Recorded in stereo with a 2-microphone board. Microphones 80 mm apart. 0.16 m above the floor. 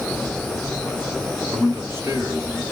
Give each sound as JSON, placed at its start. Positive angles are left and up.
{"t": 1.5, "sound": "a man speaking", "side_deg": -35, "distance_m": 1.4}